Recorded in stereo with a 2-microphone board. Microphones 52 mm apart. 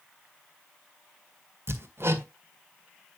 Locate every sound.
1.7 s hammering: 55° right (ahead or behind), 1.7 m